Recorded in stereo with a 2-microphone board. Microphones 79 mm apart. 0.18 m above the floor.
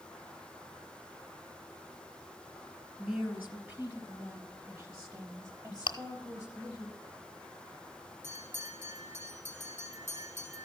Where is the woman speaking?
10° right (ahead or behind), 1.8 m; by 6.9 s 50° right (ahead or behind), 5 m.